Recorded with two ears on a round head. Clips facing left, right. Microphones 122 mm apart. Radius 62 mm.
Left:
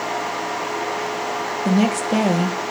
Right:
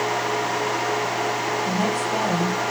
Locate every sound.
1.6 s a woman speaking: 80° left, 0.9 m